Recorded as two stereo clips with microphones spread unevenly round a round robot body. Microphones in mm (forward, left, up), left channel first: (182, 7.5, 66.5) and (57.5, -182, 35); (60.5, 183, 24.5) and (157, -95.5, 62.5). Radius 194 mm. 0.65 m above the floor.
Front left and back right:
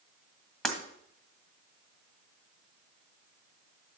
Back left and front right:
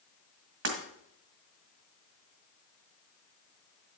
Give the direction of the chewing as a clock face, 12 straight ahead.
I don't hear chewing.